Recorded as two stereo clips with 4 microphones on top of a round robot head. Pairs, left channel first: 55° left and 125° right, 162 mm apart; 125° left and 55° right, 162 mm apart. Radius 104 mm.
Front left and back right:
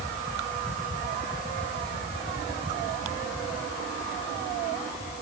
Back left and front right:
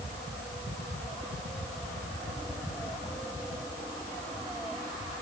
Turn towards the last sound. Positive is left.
No sound to turn to.